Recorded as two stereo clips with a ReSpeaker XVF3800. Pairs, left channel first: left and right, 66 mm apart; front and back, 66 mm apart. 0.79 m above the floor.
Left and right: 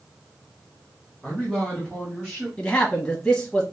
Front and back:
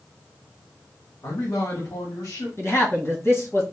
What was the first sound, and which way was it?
A man speaking, 5° left.